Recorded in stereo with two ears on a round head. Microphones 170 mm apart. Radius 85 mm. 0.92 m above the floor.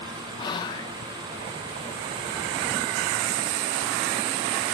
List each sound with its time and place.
0.4 s whispering: 25° left (ahead or behind)